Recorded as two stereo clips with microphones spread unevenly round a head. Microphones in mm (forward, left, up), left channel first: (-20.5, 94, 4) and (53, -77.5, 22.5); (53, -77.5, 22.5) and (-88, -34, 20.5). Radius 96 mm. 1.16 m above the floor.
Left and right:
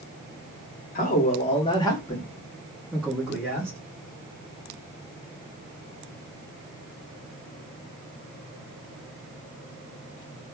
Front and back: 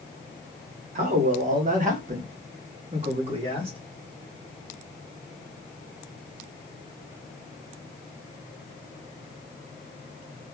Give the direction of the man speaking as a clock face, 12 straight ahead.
7 o'clock.